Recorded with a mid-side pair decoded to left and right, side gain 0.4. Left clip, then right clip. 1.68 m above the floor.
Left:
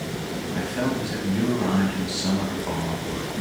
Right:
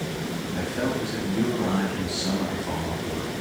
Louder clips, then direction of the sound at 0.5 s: Left 1 dB; 35° left.